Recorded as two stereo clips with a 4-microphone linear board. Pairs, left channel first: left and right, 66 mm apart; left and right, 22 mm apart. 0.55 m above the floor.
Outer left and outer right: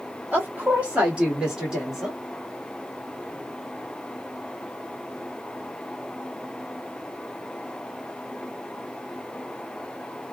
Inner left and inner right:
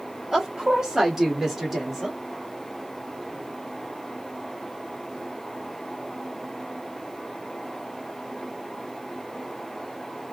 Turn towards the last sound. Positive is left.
turn(degrees=-5)  # may be behind; listen again after turning